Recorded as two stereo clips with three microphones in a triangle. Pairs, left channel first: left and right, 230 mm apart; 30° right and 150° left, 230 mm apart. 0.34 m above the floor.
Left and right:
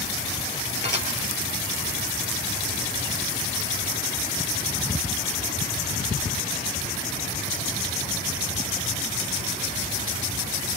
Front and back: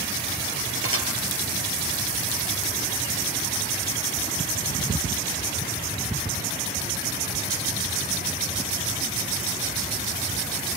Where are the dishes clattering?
130° left, 4.5 m.